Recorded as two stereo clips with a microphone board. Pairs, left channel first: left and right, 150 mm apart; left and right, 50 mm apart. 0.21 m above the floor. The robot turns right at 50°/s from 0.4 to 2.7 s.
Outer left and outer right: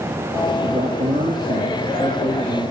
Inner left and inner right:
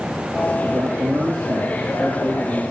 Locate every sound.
0.6 s a man speaking: 125° right, 6.5 m; by 2.7 s 20° right, 6.5 m